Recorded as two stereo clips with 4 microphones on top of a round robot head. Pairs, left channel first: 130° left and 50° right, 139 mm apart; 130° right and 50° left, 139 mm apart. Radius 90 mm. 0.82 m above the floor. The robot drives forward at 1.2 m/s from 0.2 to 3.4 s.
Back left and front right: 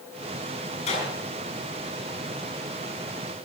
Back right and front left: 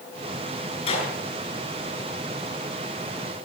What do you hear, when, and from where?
0.9 s a clap: straight behind, 8.5 m